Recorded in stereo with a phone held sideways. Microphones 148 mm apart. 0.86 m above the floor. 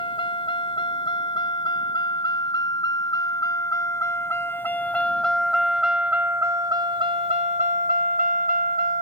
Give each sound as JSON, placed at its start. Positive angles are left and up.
{"t": 0.0, "sound": "a vehicle", "side_deg": 35}